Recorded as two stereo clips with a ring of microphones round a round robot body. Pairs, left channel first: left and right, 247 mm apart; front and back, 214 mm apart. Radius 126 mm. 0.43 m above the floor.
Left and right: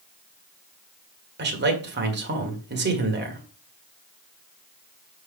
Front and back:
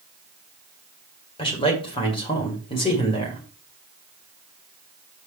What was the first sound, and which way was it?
A man speaking, 60° right.